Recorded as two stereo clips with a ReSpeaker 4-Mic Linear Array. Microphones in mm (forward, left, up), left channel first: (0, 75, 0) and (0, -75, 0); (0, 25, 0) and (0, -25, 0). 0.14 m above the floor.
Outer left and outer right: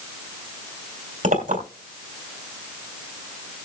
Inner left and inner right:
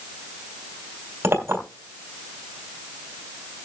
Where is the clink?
50° right (ahead or behind), 2.5 m.